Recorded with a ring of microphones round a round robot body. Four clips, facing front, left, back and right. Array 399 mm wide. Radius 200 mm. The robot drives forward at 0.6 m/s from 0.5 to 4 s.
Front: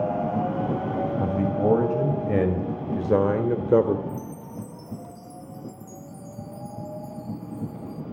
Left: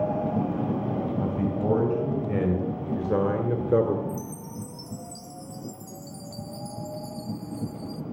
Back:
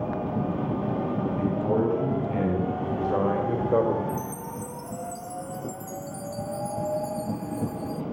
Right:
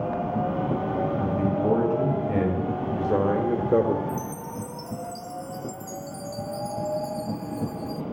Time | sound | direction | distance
1.2 | a man speaking | straight ahead | 3 m
4.1 | a chime | 175° left | 1.0 m